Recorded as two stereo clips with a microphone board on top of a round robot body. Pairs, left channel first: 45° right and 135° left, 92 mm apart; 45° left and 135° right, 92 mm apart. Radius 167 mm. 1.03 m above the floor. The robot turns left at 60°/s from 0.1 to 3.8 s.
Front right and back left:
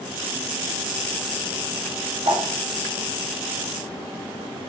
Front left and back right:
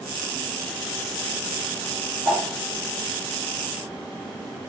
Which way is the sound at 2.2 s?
140° left.